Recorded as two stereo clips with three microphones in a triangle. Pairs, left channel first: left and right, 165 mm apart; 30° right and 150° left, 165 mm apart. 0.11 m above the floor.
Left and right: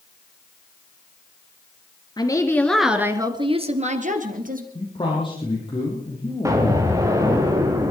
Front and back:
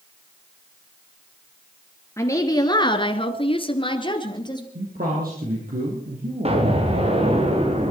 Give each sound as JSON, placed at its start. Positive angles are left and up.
{"t": 2.2, "sound": "a woman speaking", "azimuth_deg": 35, "distance_m": 1.9}
{"t": 4.8, "sound": "a man speaking", "azimuth_deg": 145, "distance_m": 4.0}
{"t": 6.5, "sound": "an explosion", "azimuth_deg": -160, "distance_m": 3.5}